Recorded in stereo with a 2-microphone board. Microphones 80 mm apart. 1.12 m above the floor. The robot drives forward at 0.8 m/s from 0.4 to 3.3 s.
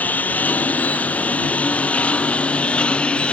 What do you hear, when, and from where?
0.0 s a lawn mower: 20° left (ahead or behind); by 3.3 s 15° left (ahead or behind)